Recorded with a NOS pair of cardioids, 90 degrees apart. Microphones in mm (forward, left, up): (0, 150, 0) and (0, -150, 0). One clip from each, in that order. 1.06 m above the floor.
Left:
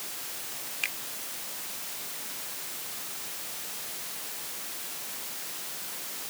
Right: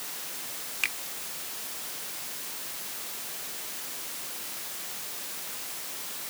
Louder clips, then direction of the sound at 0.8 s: Right 3 dB; 20° right.